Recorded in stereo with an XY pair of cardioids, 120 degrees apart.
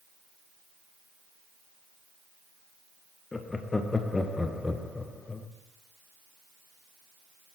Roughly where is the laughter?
Ahead.